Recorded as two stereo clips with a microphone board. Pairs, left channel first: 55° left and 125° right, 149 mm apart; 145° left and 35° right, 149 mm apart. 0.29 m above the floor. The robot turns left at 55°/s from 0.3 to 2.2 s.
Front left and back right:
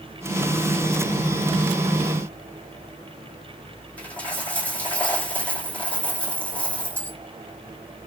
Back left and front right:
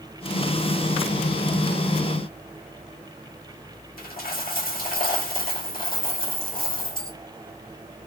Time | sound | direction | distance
4.0 | a dropped coin | 135° left | 2.0 m